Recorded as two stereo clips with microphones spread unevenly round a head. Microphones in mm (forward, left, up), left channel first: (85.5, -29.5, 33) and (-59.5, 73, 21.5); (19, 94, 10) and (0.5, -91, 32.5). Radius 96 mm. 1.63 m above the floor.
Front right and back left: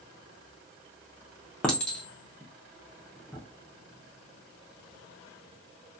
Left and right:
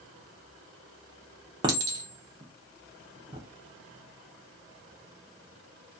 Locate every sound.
1.6 s a clink: 110° right, 0.5 m